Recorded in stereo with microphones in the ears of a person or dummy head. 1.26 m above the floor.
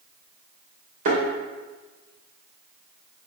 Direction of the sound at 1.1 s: 50° right (ahead or behind).